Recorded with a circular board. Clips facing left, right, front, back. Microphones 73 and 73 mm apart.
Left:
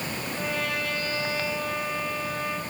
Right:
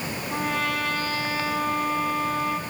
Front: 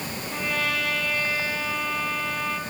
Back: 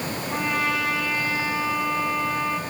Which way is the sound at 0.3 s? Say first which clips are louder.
Right 4 dB, back 3 dB; 115° right.